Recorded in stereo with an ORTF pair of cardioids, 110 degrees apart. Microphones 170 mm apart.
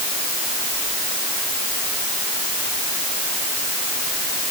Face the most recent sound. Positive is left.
No sound to turn to.